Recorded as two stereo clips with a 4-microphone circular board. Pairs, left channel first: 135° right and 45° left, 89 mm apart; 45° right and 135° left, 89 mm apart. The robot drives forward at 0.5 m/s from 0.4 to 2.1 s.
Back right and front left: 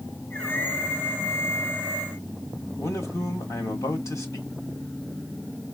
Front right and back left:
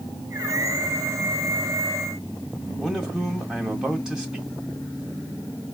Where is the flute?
I don't hear a flute.